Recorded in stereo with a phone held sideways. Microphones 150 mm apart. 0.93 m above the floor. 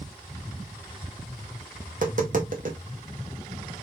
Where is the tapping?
55° right (ahead or behind), 1.6 m.